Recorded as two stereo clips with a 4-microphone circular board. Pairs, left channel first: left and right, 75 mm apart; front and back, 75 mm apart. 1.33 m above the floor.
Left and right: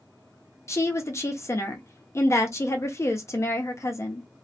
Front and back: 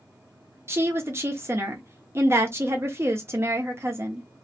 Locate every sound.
0.7 s a woman speaking: 130° left, 0.7 m